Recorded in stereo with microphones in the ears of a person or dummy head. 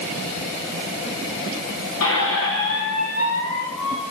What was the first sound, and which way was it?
A squeak, 75° left (ahead or behind).